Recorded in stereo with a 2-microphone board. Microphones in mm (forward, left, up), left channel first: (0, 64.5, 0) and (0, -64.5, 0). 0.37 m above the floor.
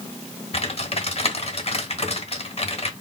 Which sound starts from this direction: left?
Typing on a keyboard, at 0.5 s.